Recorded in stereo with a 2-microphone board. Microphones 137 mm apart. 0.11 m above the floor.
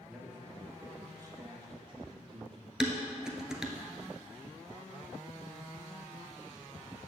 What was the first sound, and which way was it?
A man speaking, 5° right (ahead or behind).